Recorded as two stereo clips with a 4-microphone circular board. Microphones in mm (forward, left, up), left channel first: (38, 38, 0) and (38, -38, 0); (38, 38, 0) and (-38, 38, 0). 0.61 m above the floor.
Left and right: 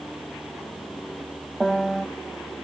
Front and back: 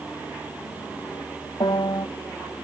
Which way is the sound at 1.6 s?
5° left.